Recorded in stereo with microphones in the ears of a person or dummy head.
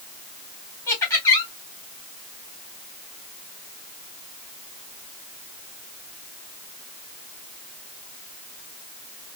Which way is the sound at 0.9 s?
15° left (ahead or behind).